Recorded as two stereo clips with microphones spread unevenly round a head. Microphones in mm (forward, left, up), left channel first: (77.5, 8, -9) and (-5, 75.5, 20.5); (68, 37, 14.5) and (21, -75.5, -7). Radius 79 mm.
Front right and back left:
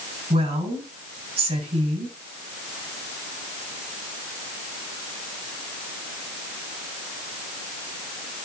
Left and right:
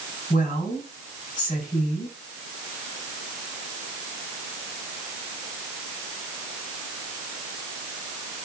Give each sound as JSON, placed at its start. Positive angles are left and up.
{"t": 0.3, "sound": "a woman speaking", "azimuth_deg": 115, "distance_m": 8.0}